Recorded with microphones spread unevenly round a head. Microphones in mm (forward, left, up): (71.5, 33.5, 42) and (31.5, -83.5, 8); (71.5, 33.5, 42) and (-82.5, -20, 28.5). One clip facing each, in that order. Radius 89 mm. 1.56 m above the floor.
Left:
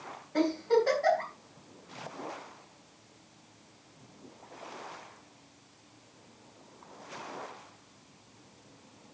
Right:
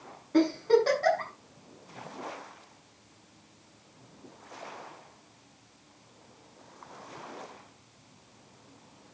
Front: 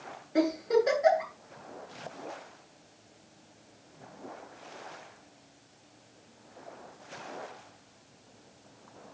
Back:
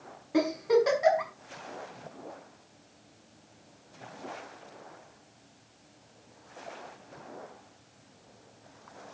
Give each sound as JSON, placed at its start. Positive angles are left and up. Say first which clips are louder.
{"t": 0.3, "sound": "a giggle", "louder": "right 3 dB, back 1 dB", "azimuth_deg": -150, "distance_m": 6.5}